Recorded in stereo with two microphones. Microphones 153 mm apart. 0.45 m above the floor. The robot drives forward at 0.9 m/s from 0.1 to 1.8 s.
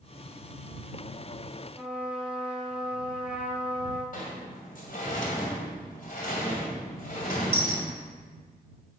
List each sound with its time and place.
1.8 s a trumpet: 5° right (ahead or behind), 1.3 m
4.1 s a sliding door: 65° left (ahead or behind), 2 m